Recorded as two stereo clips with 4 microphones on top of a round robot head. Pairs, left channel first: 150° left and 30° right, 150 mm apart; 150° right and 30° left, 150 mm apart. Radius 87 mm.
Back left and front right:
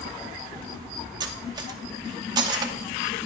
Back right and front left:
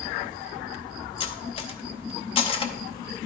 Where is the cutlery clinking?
95° right, 0.7 m.